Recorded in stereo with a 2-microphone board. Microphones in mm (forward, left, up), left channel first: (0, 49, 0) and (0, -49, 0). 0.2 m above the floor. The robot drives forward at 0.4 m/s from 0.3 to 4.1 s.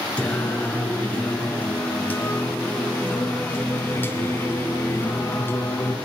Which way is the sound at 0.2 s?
15° left (ahead or behind).